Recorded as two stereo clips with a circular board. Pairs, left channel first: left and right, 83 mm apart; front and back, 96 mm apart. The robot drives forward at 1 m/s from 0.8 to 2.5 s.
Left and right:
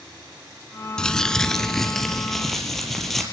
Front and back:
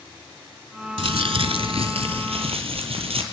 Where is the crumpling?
170° left, 0.8 m; by 3.2 s 175° left, 2.5 m.